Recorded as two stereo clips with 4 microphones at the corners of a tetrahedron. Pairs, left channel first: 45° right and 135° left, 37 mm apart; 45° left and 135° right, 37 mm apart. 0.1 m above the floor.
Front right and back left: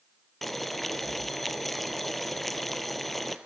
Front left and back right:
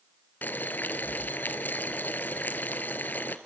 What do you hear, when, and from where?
0.4 s boiling: 40° left, 1.1 m